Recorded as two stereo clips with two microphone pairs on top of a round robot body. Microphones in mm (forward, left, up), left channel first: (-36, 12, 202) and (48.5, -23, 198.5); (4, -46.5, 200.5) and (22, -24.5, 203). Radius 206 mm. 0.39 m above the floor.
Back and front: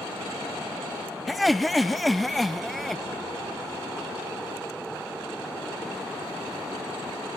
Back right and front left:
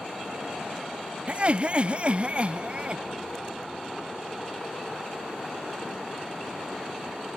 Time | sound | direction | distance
1.3 | laughter | 65° left | ?